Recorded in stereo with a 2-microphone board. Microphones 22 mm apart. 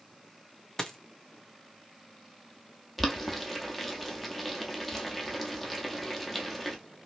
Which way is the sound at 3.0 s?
5° left (ahead or behind).